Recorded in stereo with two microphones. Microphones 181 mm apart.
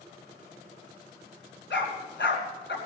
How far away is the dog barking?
About 3 m.